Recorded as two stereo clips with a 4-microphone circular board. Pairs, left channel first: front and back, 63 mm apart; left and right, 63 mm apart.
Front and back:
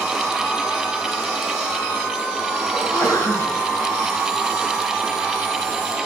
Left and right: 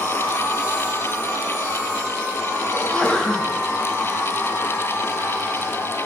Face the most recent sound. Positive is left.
turn(degrees=15)